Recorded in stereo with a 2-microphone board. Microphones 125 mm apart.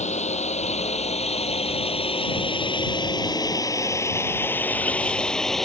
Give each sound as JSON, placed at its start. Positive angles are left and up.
{"t": 0.0, "sound": "a drone", "side_deg": 65}